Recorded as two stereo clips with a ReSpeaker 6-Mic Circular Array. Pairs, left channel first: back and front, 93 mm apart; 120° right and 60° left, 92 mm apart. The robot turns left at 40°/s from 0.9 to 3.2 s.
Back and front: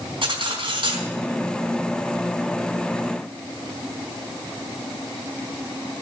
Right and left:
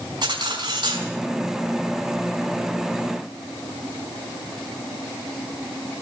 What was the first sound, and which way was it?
Cutlery clinking, 20° left.